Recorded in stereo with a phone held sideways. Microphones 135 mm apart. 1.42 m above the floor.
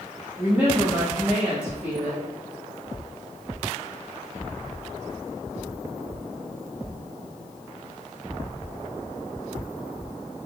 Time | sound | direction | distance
0.4 | a woman speaking | 10° right (ahead or behind) | 2.0 m